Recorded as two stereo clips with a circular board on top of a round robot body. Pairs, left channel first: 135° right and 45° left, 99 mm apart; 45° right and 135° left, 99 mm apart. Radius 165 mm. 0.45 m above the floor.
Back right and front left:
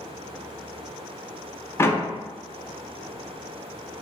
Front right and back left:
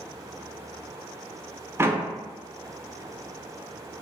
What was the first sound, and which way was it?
A door slam, straight behind.